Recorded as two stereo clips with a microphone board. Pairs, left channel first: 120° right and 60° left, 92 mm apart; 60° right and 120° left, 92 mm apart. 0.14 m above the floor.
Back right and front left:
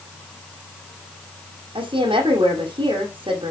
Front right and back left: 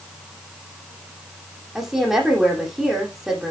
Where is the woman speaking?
40° left, 5.5 m.